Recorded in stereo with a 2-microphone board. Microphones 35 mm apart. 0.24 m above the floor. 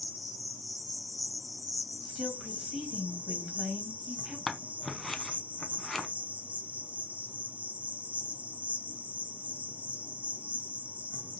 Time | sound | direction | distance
0.0 | an insect | 50° right (ahead or behind) | 1.0 m
2.0 | a woman speaking | 20° right (ahead or behind) | 1.4 m
4.5 | scissors | centre (ahead or behind) | 0.6 m